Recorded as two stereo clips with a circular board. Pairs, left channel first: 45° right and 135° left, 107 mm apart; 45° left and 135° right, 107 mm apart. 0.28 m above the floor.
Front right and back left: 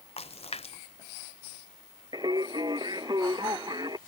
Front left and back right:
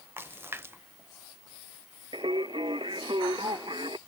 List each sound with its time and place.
0.2 s a splash: 65° right
2.1 s singing: straight behind